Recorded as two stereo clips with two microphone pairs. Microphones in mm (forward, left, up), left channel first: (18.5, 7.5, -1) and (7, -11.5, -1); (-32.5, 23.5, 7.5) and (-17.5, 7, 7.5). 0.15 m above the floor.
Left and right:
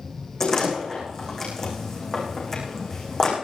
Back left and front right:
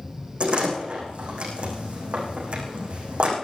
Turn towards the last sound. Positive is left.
turn(degrees=-10)